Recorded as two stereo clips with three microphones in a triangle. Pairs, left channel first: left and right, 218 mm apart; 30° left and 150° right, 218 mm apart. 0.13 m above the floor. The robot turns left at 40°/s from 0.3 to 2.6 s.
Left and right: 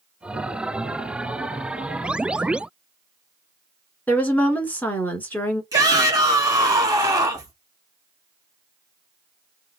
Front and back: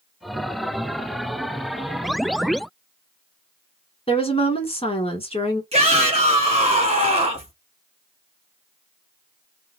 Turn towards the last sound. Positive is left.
turn(degrees=-145)